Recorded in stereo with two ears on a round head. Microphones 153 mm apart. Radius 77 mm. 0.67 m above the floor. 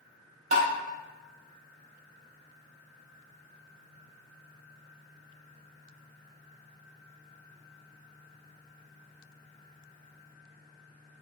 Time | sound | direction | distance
0.5 | tapping | 45° right (ahead or behind) | 0.6 m